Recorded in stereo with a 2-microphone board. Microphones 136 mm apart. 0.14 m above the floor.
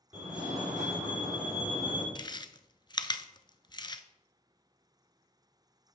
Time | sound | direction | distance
0.1 | a fire alarm | 5° right (ahead or behind) | 5 m
2.1 | chewing | 35° left (ahead or behind) | 0.5 m